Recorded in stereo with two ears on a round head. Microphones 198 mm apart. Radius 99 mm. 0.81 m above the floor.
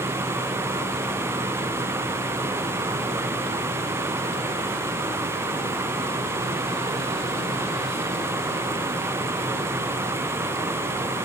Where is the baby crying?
No baby crying in this recording.